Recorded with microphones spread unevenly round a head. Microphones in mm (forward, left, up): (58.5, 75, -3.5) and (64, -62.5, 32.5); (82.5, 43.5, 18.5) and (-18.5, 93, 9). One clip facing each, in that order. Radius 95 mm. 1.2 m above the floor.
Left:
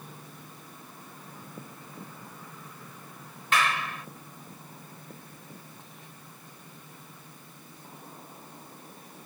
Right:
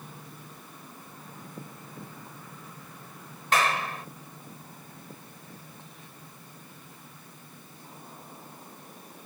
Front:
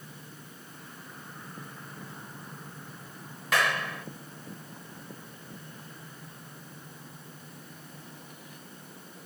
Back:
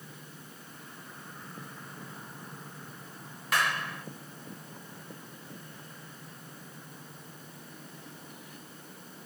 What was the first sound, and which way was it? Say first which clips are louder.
A clap: right 2 dB, front 2 dB; 40° right.